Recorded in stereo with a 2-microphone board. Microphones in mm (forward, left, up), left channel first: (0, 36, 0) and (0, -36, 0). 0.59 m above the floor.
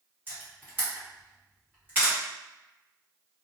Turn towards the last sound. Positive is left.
turn(degrees=-25)  # may be behind; listen again after turning